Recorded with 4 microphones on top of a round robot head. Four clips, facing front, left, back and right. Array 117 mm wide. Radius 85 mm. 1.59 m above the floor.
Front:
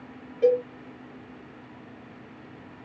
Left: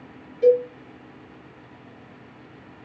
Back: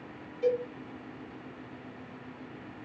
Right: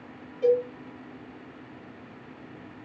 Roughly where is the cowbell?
Ahead.